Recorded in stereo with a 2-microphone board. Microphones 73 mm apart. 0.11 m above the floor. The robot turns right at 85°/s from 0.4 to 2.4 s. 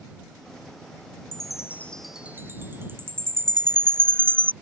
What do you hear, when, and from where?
1.3 s a chime: 60° left (ahead or behind); by 4.5 s 30° right (ahead or behind)